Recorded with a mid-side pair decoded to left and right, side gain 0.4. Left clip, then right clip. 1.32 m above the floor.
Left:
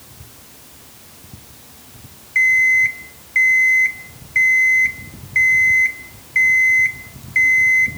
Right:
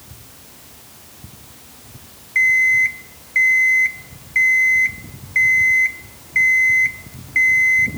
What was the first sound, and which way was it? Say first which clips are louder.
An alarm clock: left 1 dB; 5° left.